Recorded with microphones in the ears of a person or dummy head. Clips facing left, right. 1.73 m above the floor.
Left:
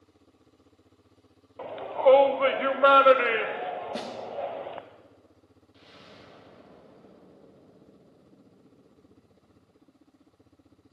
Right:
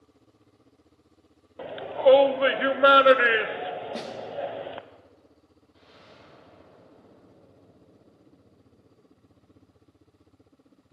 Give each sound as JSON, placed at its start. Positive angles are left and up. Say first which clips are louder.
{"t": 1.6, "sound": "a shout", "louder": "right 1 dB", "side_deg": -15, "distance_m": 0.8}
{"t": 3.9, "sound": "a snare drum", "louder": "even", "side_deg": 5, "distance_m": 0.9}
{"t": 5.7, "sound": "an explosion", "louder": "left 1 dB", "side_deg": 40, "distance_m": 2.5}